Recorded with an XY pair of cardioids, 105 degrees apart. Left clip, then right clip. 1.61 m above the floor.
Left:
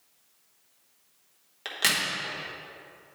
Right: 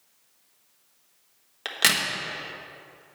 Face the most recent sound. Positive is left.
turn(degrees=-30)